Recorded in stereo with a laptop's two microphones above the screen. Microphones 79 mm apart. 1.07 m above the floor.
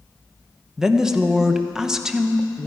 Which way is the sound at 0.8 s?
10° right (ahead or behind).